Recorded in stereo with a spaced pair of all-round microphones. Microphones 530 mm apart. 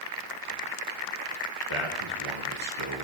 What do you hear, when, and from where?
1.7 s a man speaking: 65° right (ahead or behind), 1.3 m